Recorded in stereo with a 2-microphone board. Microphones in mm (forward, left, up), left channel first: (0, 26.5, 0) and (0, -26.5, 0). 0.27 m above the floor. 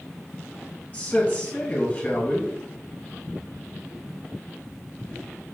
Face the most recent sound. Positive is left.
turn(degrees=30)  # may be behind; listen again after turning